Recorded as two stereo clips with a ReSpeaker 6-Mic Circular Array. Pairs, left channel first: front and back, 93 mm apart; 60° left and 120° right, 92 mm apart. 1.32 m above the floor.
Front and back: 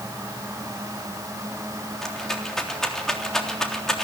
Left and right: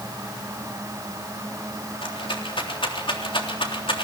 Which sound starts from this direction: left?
A rattle, at 2.0 s.